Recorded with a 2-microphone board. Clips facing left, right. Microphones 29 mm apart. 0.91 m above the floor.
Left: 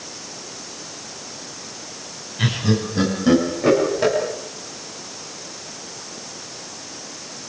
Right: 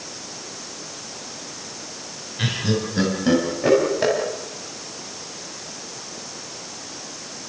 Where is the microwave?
I don't hear a microwave.